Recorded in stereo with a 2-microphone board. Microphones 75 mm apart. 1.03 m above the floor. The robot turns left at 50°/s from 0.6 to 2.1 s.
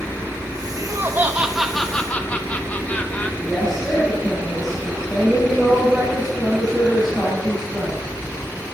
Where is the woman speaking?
10° left (ahead or behind), 5 m.